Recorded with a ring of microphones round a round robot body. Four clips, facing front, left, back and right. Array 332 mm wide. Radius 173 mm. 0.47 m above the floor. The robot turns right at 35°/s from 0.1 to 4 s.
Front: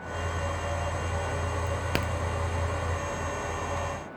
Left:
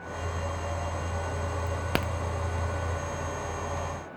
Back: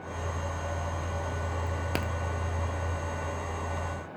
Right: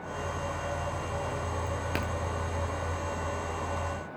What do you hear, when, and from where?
1.7 s a crack: 70° left, 0.6 m; by 2.1 s 85° left, 0.6 m